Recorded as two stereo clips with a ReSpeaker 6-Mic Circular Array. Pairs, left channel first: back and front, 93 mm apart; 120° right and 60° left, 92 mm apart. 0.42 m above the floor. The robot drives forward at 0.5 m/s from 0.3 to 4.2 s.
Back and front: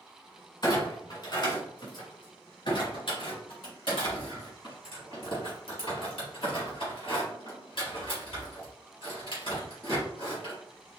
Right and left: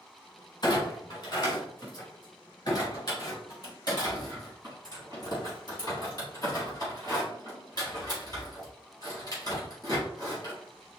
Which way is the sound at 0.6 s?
155° right.